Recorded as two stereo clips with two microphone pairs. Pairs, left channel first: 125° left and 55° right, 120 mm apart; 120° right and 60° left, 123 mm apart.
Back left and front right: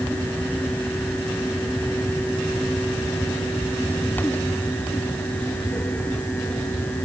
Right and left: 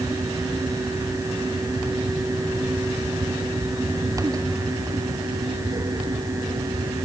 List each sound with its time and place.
Only background noise.